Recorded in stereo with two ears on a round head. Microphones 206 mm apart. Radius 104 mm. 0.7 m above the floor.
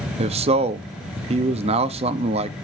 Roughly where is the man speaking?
Right.